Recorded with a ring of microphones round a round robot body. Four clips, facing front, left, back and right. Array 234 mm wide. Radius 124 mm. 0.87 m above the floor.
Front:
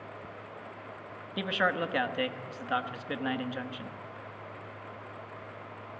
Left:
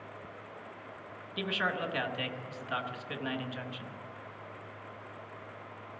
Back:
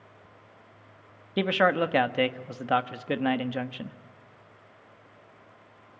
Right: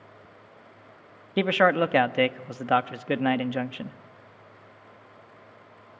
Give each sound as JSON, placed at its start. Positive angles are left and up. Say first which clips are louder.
{"t": 1.4, "sound": "a man speaking", "louder": "right 13 dB, back 6 dB", "azimuth_deg": -115, "distance_m": 1.1}